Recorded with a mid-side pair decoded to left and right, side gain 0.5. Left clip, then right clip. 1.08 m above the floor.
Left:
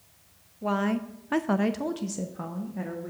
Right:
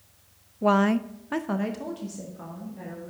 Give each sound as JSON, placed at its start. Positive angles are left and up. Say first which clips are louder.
{"t": 0.6, "sound": "a woman speaking", "louder": "right 6 dB", "azimuth_deg": -50, "distance_m": 0.6}